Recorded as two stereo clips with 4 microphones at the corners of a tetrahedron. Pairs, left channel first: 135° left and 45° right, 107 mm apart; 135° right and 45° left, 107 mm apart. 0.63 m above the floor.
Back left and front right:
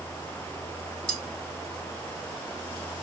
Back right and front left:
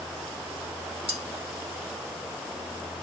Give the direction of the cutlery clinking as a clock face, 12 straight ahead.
10 o'clock.